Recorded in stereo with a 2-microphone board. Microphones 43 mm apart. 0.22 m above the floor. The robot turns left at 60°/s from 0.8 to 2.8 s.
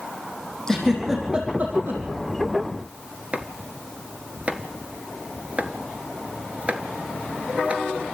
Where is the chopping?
30° right (ahead or behind), 1.6 m.